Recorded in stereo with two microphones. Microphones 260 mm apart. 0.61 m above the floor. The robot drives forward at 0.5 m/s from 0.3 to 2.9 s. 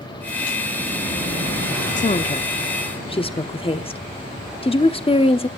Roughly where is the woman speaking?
Left.